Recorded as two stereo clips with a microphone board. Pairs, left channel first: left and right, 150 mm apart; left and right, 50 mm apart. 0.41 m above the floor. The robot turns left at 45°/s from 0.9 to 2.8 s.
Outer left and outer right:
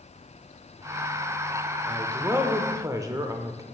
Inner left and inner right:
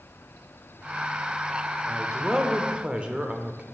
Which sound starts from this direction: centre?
A man speaking, at 1.9 s.